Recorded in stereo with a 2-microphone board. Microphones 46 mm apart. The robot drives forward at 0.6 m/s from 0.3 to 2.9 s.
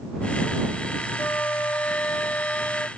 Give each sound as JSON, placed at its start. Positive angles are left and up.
{"t": 1.2, "sound": "a flute", "side_deg": 60}